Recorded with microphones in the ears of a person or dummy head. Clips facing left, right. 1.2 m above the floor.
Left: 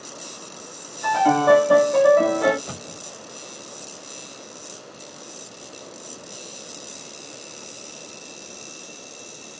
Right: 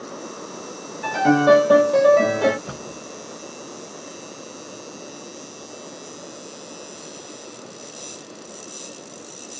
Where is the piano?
50° right (ahead or behind), 1.2 m.